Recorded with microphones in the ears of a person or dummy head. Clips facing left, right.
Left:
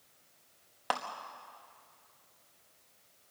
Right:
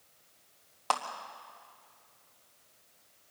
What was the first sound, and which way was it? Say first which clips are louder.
A clap: right 2 dB; 15° left (ahead or behind).